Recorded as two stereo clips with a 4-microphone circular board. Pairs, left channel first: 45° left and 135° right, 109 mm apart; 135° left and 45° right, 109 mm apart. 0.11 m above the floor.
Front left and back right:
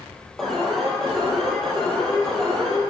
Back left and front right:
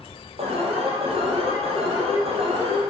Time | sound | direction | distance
0.4 | an alarm | 40° right | 3.5 m